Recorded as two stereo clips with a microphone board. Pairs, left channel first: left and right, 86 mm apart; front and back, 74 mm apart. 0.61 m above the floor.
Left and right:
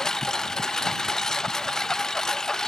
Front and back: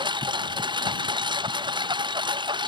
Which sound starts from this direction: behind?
A lawn mower, at 0.0 s.